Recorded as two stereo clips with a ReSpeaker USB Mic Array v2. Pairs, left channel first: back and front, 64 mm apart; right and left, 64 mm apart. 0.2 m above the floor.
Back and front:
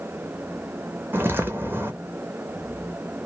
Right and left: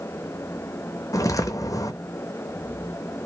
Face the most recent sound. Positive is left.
turn(degrees=-55)